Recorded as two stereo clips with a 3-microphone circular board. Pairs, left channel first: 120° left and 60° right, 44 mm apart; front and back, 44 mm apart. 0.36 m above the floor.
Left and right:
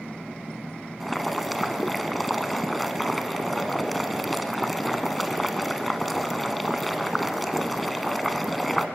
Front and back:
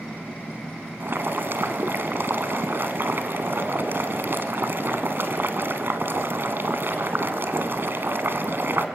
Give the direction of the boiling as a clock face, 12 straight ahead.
5 o'clock.